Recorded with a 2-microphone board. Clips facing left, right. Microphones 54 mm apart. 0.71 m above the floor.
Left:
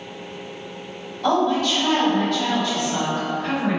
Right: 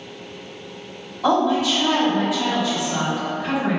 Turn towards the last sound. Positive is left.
turn(degrees=-10)  # may be behind; listen again after turning